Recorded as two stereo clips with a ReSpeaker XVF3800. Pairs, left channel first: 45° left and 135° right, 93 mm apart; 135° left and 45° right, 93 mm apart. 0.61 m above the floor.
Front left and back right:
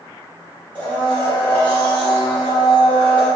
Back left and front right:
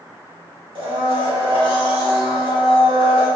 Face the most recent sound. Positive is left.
turn(degrees=-25)